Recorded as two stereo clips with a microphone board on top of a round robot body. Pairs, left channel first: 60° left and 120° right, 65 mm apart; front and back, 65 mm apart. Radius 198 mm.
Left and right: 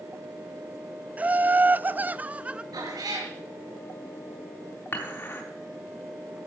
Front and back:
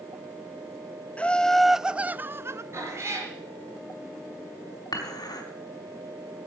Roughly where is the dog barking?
I don't hear a dog barking.